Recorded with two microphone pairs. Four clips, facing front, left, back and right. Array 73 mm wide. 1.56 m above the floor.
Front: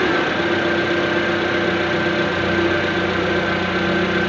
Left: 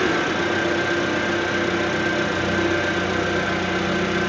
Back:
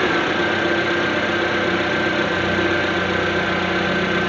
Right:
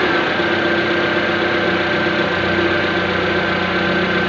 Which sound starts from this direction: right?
An engine running, at 0.0 s.